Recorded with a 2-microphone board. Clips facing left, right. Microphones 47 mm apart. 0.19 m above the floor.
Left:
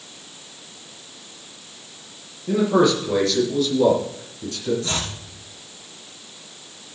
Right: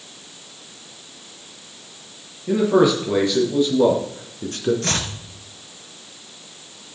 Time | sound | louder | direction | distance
2.5 | a man speaking | right 1 dB | 10° right (ahead or behind) | 4.5 m
4.8 | chopping | right 2 dB | 65° right (ahead or behind) | 2 m